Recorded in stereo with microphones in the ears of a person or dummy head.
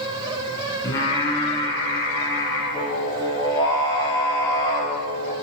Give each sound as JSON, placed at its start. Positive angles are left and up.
{"t": 0.8, "sound": "singing", "side_deg": 20, "distance_m": 0.5}